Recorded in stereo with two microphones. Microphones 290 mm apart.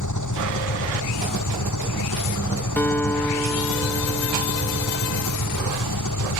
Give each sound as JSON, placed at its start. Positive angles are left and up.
{"t": 0.0, "sound": "an engine running", "side_deg": 80}
{"t": 2.8, "sound": "a guitar", "side_deg": 5}